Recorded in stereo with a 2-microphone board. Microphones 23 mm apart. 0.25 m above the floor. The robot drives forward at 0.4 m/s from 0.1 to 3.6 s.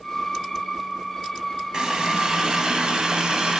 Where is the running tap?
35° right (ahead or behind), 1.2 m; by 3.6 s 40° right (ahead or behind), 1.0 m.